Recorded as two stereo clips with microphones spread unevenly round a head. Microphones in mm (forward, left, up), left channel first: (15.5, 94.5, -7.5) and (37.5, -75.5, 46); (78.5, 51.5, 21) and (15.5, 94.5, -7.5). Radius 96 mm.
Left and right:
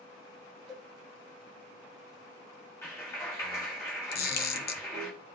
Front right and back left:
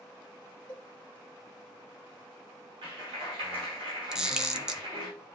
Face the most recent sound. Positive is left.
turn(degrees=65)